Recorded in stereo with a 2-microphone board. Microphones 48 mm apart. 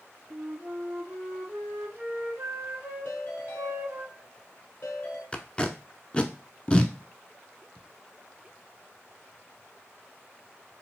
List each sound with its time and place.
0.3 s a flute: 65° right (ahead or behind), 2.5 m
3.0 s a ringtone: 60° left (ahead or behind), 2 m
5.3 s tape being pulled: 25° left (ahead or behind), 0.5 m